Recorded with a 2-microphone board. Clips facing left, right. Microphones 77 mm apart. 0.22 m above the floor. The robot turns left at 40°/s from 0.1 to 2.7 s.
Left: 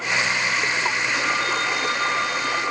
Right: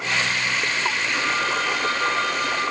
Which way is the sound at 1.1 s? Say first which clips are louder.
Even; 5° left.